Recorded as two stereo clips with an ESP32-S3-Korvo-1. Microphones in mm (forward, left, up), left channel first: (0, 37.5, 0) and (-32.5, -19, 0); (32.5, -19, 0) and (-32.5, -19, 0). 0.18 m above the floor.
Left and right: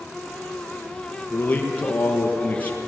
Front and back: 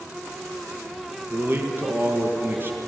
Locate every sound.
1.3 s a man speaking: 125° left, 3.5 m